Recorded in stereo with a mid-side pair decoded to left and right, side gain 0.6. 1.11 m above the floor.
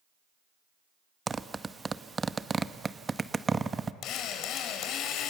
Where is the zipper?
20° right, 0.9 m.